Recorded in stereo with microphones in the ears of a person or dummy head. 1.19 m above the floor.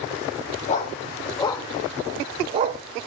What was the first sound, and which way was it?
A dog barking, 40° left (ahead or behind).